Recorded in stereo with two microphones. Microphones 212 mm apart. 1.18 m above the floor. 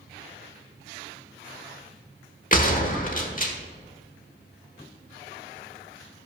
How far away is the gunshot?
About 1.1 m.